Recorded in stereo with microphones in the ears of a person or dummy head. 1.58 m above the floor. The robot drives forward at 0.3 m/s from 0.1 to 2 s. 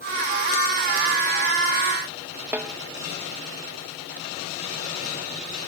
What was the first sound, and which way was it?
A snare drum, 10° right (ahead or behind).